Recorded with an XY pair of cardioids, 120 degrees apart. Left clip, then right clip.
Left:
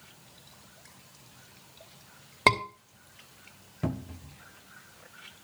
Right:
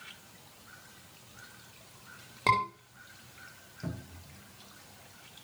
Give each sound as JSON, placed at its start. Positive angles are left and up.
{"t": 2.5, "sound": "a scream", "azimuth_deg": 55, "distance_m": 3.0}
{"t": 3.8, "sound": "a cupboard door", "azimuth_deg": 60, "distance_m": 0.8}